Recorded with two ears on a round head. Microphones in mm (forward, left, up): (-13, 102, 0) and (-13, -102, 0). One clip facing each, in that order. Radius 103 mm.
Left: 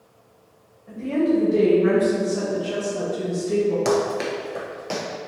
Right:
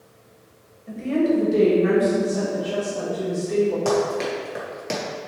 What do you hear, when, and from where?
0.9 s a woman speaking: 30° right (ahead or behind), 1.3 m; by 3.8 s 55° left (ahead or behind), 1.7 m
3.9 s running footsteps: 30° left (ahead or behind), 1.0 m; by 5.0 s 30° right (ahead or behind), 1.1 m